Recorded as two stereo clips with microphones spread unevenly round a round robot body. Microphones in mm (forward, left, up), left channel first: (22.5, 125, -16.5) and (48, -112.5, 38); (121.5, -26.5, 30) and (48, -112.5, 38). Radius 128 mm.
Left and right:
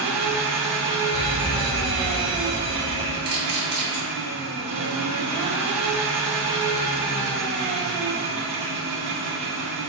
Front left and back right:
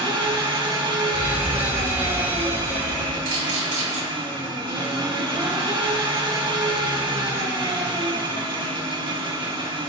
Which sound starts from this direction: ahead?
A fire alarm, at 1.1 s.